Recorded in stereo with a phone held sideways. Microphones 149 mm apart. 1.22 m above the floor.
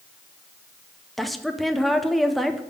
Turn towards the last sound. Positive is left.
turn(degrees=0)  # may be behind; listen again after turning